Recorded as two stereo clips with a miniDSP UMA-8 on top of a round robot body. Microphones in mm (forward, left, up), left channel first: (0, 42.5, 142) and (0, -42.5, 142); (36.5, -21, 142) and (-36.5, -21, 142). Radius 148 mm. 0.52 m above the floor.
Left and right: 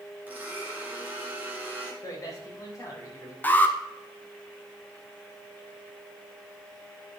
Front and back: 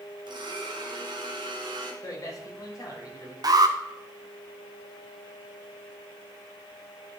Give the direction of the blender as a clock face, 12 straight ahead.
5 o'clock.